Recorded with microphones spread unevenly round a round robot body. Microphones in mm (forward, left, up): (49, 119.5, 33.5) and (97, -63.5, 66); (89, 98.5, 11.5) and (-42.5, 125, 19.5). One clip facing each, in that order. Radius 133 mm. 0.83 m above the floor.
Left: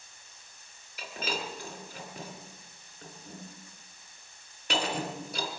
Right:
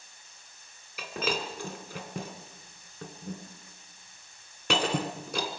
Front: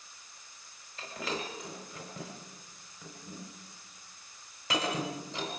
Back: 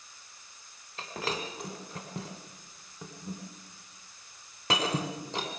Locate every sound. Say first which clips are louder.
1.0 s breaking glass: right 4 dB, back 2 dB; 135° right, 2 m